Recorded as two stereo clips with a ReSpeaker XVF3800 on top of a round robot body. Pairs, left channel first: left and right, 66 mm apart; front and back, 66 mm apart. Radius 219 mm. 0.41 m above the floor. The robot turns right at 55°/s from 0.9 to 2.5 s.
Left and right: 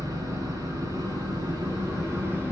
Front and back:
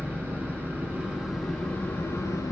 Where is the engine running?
115° right, 9 m; by 2.5 s 30° right, 9 m.